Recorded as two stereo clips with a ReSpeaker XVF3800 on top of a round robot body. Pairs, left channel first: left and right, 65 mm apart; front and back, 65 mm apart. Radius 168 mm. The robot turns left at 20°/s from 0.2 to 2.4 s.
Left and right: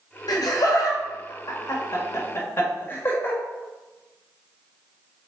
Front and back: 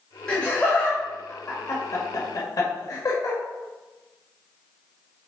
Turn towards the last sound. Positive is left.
turn(degrees=30)